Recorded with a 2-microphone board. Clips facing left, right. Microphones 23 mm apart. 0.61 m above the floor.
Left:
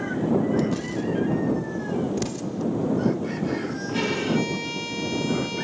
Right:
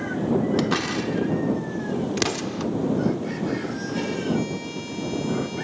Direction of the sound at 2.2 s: 55° right (ahead or behind).